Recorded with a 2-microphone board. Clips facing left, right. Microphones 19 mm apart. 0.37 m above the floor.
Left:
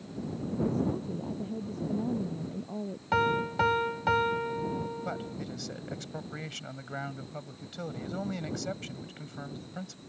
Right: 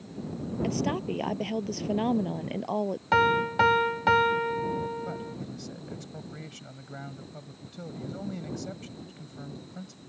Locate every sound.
0.6 s a woman speaking: 85° right
3.1 s a piano: 20° right (ahead or behind)
5.0 s a man speaking: 30° left (ahead or behind)